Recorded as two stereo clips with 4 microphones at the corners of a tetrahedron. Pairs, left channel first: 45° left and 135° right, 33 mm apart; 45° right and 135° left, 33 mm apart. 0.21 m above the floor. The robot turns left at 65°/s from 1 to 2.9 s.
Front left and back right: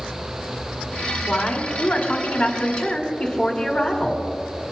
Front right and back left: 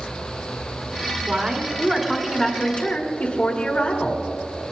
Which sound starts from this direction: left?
A woman speaking, at 1.3 s.